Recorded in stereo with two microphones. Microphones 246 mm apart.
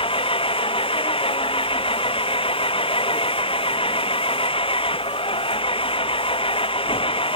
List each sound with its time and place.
0.0 s an engine running: 20° left (ahead or behind)